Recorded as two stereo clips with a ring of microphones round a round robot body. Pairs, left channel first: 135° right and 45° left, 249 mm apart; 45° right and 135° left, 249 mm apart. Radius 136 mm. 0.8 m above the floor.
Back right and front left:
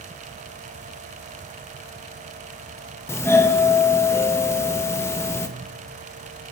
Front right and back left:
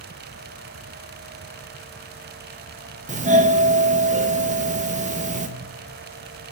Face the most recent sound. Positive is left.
turn(degrees=155)